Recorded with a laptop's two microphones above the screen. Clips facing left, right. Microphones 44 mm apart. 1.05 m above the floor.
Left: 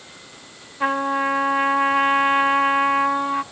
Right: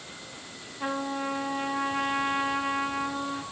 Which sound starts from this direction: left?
A trumpet, at 0.8 s.